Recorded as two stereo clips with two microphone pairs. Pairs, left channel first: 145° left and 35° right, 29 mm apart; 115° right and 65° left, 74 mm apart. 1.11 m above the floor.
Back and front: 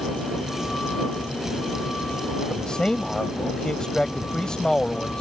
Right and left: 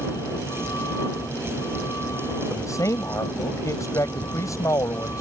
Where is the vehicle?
155° right; by 5.2 s 165° right.